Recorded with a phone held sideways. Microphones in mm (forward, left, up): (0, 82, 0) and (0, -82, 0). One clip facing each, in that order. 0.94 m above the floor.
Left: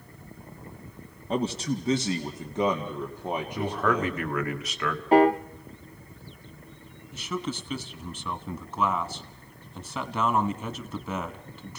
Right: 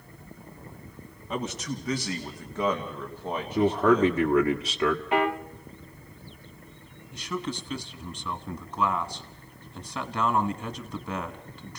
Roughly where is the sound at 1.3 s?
Left.